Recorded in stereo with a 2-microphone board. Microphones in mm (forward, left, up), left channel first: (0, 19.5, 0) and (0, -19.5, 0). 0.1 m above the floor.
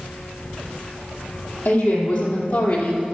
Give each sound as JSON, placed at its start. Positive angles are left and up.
{"t": 1.6, "sound": "a woman speaking", "side_deg": 60, "distance_m": 3.5}